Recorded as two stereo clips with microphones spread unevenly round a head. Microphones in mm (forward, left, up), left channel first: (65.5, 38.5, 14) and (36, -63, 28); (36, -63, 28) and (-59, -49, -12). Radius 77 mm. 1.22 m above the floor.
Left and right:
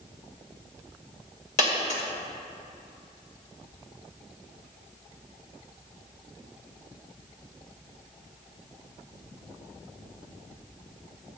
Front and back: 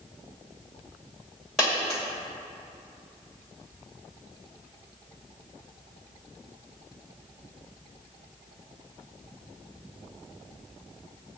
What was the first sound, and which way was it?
A dropped coin, 70° left.